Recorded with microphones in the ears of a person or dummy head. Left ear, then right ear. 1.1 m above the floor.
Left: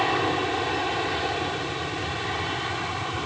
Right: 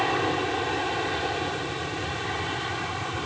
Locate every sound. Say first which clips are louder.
0.0 s an aircraft: left 1 dB; centre (ahead or behind)